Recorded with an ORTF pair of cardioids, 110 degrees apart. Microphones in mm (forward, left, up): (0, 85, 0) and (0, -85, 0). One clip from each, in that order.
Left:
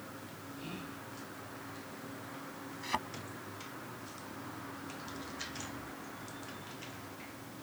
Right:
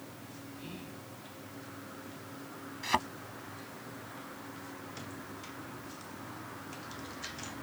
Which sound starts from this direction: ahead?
Whispering, at 0.6 s.